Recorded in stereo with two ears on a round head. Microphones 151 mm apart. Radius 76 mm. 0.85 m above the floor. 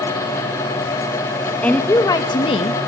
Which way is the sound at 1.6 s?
5° left (ahead or behind).